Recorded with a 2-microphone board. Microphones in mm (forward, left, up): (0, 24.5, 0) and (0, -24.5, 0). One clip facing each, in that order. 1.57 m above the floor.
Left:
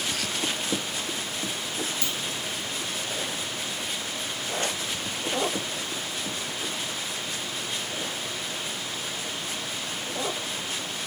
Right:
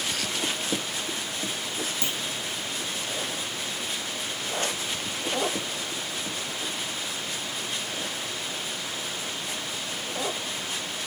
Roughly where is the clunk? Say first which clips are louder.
Even; right.